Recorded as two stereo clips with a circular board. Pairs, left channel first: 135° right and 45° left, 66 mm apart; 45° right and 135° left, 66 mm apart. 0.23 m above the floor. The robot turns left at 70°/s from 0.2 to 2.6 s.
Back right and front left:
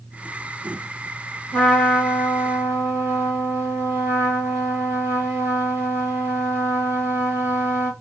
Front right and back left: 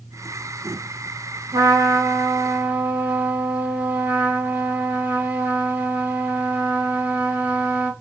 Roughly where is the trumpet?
Behind left.